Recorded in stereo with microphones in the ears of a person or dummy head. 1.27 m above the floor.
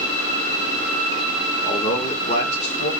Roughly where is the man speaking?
Left.